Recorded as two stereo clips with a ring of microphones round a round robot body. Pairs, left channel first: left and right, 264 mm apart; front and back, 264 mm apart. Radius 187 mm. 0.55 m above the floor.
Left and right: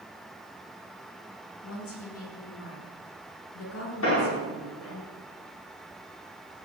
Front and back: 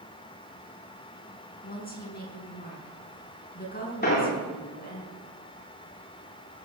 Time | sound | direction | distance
1.6 | a woman speaking | 55° left | 6.5 m
4.0 | an explosion | 50° left | 7.5 m